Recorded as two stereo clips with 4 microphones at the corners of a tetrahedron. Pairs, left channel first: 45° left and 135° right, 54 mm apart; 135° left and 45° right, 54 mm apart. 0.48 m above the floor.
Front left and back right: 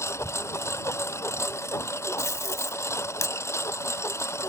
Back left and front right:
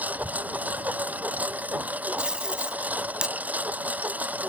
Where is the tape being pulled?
30° left.